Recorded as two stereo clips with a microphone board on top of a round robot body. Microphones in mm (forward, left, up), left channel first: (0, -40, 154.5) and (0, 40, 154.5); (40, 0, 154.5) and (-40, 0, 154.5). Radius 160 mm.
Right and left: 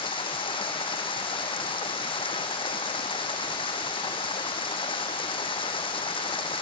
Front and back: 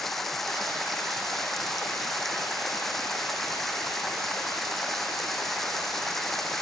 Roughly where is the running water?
Right.